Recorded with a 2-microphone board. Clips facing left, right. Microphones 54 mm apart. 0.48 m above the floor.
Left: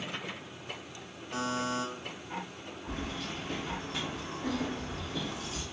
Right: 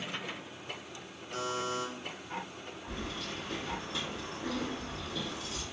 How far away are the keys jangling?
About 1.6 m.